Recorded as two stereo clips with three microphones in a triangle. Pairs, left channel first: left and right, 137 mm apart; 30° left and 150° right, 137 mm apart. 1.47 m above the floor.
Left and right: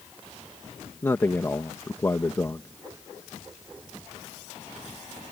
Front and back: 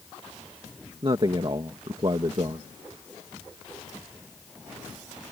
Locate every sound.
1.0 s a man speaking: 160° left